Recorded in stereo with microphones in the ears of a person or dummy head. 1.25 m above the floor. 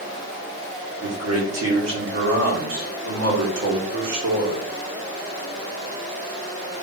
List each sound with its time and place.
1.0 s a man speaking: 80° right, 1.9 m